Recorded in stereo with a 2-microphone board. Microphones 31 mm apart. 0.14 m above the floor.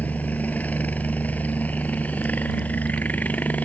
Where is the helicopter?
60° left (ahead or behind).